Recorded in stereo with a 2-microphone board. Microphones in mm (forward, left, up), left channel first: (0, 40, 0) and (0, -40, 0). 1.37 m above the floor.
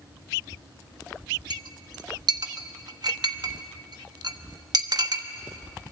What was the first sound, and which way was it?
A clink, 60° right (ahead or behind).